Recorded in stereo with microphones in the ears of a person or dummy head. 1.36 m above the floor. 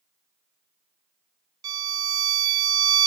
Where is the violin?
25° right (ahead or behind), 0.9 m.